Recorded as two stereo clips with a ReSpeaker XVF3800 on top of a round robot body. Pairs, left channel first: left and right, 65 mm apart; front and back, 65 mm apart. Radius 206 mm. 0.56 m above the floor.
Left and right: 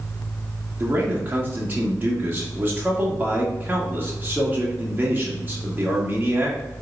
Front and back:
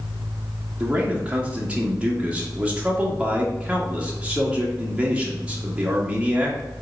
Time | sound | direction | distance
0.8 | a man speaking | 125° right | 1.4 m